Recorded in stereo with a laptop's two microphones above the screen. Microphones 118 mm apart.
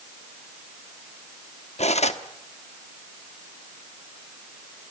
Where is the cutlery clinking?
70° left (ahead or behind), 1.0 m.